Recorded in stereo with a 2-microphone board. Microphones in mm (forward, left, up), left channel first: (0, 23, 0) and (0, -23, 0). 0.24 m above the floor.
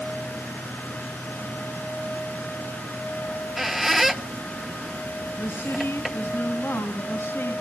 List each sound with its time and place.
3.3 s a squeak: 5° right (ahead or behind), 0.6 m
5.4 s a woman speaking: 60° left (ahead or behind), 2.5 m